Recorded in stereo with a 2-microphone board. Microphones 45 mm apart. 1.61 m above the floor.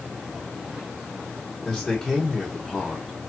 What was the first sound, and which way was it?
A man speaking, 20° left (ahead or behind).